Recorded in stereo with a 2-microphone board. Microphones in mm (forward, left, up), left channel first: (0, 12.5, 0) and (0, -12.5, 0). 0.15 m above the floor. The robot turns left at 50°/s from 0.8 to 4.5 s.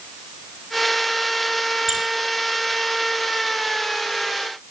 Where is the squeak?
20° right (ahead or behind), 0.6 m; by 2.0 s 25° right (ahead or behind), 0.6 m.